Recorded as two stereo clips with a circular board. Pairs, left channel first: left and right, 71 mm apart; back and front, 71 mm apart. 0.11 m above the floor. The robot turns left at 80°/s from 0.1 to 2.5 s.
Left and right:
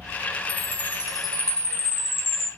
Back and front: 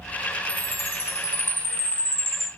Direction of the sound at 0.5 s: 120° right.